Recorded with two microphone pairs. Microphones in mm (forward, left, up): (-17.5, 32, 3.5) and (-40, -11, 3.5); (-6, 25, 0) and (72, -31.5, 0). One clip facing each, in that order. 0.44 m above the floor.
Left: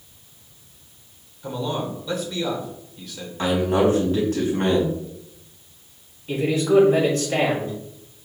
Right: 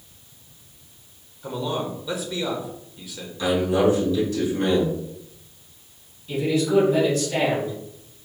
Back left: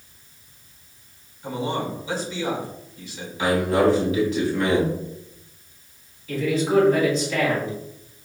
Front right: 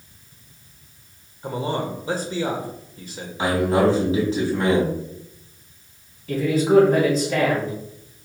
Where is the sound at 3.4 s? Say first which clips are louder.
Left 1 dB, even; 20° left, 3.5 m.